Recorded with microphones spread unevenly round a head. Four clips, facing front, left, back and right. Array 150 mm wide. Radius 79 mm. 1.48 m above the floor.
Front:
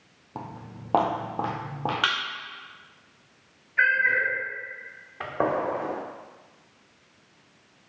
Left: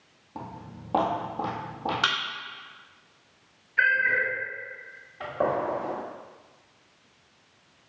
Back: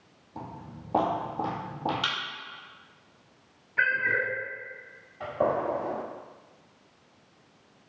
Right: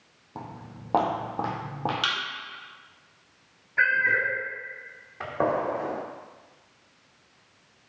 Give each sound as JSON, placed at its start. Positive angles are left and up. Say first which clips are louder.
{"t": 0.3, "sound": "footsteps", "louder": "left 1 dB, front 2 dB", "azimuth_deg": -15, "distance_m": 2.0}
{"t": 2.0, "sound": "a thud", "louder": "left 3 dB, front 6 dB", "azimuth_deg": 30, "distance_m": 2.5}
{"t": 3.8, "sound": "a cat meowing", "louder": "even, front 3 dB", "azimuth_deg": -145, "distance_m": 1.6}
{"t": 5.2, "sound": "a gunshot", "louder": "right 1 dB, front 1 dB", "azimuth_deg": -40, "distance_m": 1.3}